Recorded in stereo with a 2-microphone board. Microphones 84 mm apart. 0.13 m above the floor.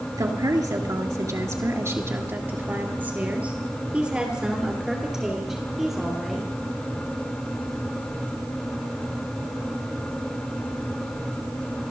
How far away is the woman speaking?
About 2.5 m.